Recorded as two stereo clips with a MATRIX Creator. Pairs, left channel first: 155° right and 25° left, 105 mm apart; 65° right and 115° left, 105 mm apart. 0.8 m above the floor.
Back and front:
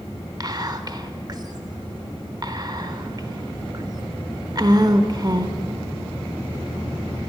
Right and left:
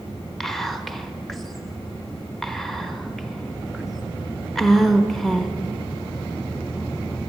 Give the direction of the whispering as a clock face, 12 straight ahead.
11 o'clock.